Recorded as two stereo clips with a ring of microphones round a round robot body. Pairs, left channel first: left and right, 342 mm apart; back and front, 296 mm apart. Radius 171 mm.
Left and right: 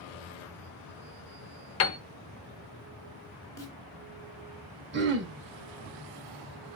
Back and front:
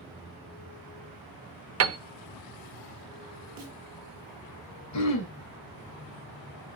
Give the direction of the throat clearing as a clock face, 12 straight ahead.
5 o'clock.